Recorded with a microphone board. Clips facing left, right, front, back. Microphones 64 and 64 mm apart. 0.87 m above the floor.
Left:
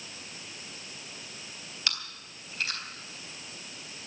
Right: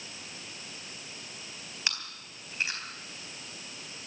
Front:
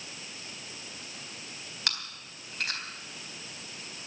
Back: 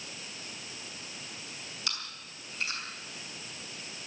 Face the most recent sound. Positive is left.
turn(degrees=-25)